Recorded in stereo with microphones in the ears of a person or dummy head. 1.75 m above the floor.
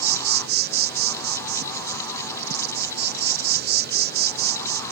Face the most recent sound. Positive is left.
turn(degrees=-55)  # may be behind; listen again after turning